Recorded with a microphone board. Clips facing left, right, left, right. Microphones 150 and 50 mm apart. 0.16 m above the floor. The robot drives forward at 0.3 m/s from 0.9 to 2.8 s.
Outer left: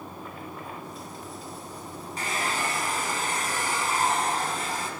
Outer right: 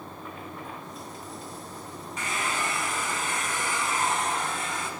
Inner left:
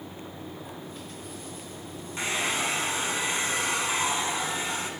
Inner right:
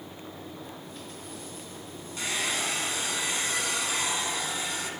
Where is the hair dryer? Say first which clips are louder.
Outer left 1 dB, inner left 2 dB; 35° left (ahead or behind), 0.7 m.